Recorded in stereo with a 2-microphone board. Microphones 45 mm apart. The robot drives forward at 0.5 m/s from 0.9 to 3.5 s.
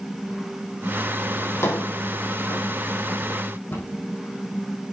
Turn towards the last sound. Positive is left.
turn(degrees=50)  # may be behind; listen again after turning